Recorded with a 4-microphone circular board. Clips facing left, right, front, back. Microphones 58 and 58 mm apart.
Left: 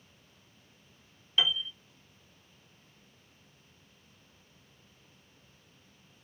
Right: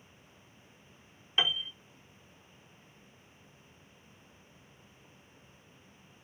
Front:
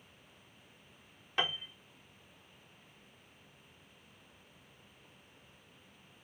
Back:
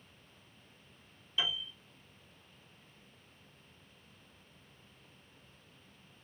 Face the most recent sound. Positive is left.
turn(degrees=-25)